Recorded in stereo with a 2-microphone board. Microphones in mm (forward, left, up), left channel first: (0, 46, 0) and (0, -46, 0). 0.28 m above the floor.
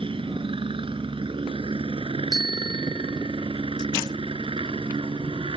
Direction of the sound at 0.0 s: 70° right (ahead or behind).